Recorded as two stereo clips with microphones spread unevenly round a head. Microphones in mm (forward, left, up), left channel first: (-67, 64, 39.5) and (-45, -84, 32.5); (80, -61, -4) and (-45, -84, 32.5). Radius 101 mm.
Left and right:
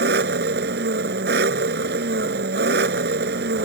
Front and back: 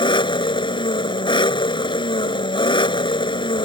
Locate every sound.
0.0 s an engine running: 45° right